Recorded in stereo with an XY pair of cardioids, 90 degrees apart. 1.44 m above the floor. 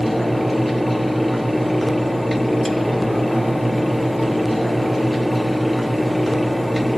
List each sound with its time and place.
0.0 s a fan: 5° left, 0.7 m